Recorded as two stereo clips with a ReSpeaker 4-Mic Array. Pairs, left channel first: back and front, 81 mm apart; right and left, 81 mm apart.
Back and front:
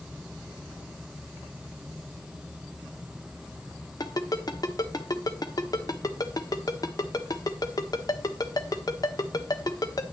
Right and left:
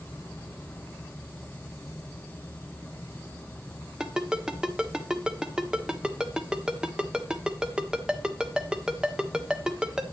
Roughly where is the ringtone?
Behind.